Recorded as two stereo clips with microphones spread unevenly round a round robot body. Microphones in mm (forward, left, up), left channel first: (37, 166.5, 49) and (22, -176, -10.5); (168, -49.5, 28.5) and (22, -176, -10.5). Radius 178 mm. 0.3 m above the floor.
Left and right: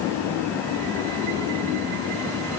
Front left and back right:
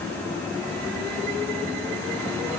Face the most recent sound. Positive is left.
No sound to turn to.